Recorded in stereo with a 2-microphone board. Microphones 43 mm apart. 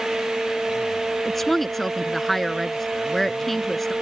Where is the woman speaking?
5° left (ahead or behind).